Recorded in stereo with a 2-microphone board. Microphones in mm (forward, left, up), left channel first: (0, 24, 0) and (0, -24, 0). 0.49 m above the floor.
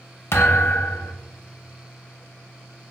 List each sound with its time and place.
0.3 s a thud: 55° left (ahead or behind), 0.5 m